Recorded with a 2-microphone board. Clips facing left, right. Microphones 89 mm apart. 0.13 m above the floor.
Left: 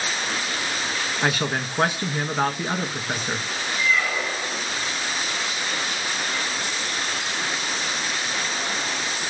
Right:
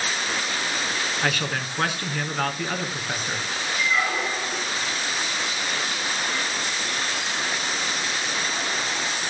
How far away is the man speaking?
About 1.5 m.